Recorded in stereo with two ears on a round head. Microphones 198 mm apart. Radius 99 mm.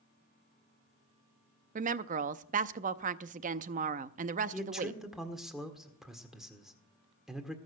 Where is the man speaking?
Centre (ahead or behind), 1.7 m.